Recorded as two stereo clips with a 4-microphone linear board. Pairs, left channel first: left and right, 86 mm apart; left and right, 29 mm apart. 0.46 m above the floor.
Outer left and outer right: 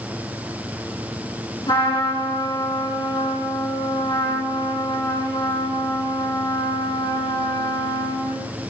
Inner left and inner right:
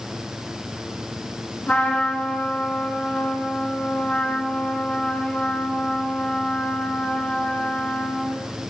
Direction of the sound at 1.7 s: 70° left (ahead or behind).